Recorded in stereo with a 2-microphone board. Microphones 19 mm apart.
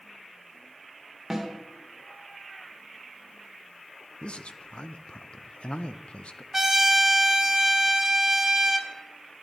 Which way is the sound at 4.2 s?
60° left (ahead or behind).